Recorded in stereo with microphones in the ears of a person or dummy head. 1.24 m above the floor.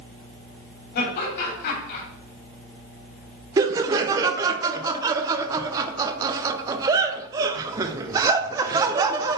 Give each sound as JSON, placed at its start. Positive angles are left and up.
{"t": 0.9, "sound": "laughter", "side_deg": 50, "distance_m": 3.5}
{"t": 3.6, "sound": "laughter", "side_deg": -25, "distance_m": 0.7}